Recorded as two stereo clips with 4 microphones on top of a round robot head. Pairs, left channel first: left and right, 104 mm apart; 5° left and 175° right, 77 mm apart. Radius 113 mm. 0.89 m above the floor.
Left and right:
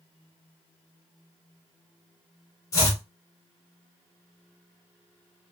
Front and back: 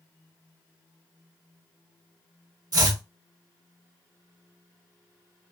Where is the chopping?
150° left, 1.3 m.